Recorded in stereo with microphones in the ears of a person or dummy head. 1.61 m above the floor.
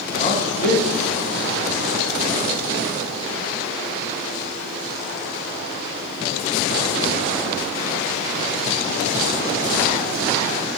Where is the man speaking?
30° left (ahead or behind), 1.0 m; by 1.9 s 75° left (ahead or behind), 2.5 m.